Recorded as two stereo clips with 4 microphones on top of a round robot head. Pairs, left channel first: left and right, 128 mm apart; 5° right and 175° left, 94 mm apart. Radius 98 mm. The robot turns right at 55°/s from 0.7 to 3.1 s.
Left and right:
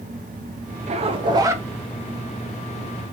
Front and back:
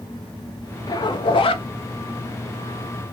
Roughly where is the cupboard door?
No cupboard door in this recording.